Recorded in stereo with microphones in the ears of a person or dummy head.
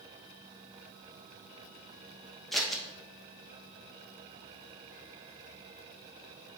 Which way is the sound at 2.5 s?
Centre (ahead or behind).